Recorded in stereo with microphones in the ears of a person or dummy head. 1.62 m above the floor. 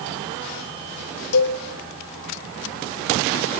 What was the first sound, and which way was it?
A cowbell, 85° left.